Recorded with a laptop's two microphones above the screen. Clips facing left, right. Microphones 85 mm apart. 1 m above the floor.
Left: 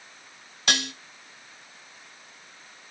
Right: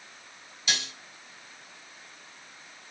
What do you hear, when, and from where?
0.7 s dishes clattering: 65° left (ahead or behind), 0.7 m